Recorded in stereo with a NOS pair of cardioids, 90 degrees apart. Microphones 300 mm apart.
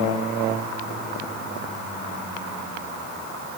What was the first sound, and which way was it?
Only background noise.